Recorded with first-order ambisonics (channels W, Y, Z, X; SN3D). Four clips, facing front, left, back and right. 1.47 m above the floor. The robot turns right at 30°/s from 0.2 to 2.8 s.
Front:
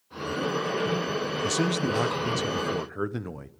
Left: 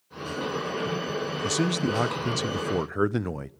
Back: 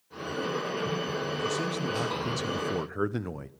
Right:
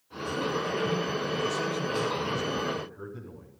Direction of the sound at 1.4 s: 55° left.